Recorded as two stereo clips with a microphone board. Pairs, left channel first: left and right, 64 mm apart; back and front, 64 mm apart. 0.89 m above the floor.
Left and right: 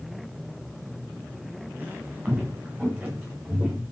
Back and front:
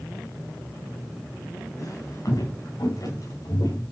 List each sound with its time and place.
1.8 s footsteps: 155° right, 8.5 m; by 3.8 s 170° right, 10.5 m